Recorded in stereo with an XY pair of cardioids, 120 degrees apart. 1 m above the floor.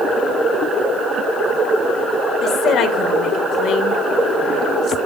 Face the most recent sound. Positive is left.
turn(degrees=65)